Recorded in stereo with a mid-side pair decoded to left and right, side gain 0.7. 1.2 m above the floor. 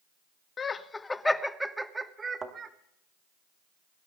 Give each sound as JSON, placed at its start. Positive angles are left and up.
{"t": 0.6, "sound": "laughter", "azimuth_deg": 30, "distance_m": 1.2}
{"t": 2.4, "sound": "a thud", "azimuth_deg": -25, "distance_m": 2.0}